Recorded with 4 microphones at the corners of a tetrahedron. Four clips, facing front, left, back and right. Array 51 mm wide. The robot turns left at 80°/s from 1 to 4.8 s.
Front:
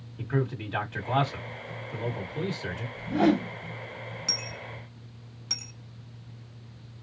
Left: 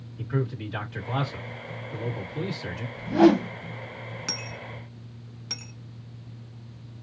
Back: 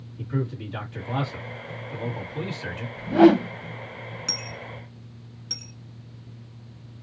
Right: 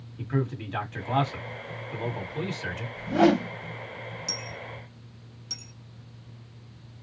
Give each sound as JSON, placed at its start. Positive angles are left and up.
{"t": 0.2, "sound": "a man speaking", "azimuth_deg": -25, "distance_m": 1.4}
{"t": 3.0, "sound": "a whoosh", "azimuth_deg": -155, "distance_m": 0.5}
{"t": 4.3, "sound": "a dropped coin", "azimuth_deg": 105, "distance_m": 0.7}